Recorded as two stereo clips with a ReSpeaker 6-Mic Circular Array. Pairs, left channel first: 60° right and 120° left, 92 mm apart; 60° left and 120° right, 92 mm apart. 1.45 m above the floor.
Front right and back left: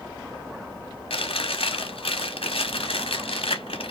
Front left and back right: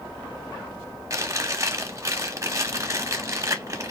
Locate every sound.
1.1 s chewing: 65° right, 0.9 m